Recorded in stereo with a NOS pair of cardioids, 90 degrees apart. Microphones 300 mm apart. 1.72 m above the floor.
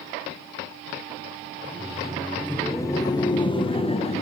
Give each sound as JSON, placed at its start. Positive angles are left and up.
{"t": 1.6, "sound": "laughter", "azimuth_deg": -5, "distance_m": 1.1}